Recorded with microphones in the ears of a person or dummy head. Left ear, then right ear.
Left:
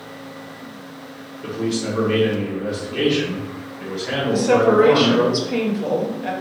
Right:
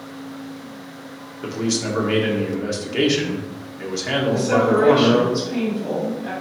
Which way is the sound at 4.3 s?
70° left (ahead or behind).